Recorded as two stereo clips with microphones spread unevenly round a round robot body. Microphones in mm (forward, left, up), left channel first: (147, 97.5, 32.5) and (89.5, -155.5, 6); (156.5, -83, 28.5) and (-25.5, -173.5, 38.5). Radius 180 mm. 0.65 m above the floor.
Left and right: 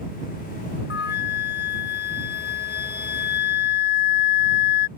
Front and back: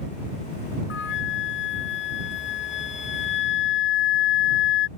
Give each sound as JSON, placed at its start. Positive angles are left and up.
{"t": 0.9, "sound": "a flute", "azimuth_deg": 25}